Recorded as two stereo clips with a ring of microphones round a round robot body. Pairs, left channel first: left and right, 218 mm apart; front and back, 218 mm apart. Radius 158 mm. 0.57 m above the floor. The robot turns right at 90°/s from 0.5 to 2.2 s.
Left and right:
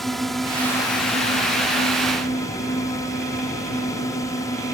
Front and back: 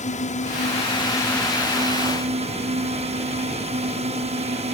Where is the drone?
Straight ahead; by 4.8 s 155° left.